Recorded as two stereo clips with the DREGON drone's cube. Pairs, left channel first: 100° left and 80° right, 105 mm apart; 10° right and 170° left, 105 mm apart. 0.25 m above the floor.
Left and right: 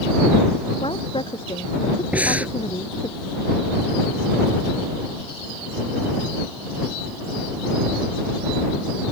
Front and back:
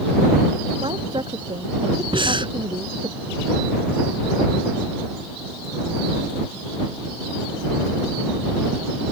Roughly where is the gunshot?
I don't hear a gunshot.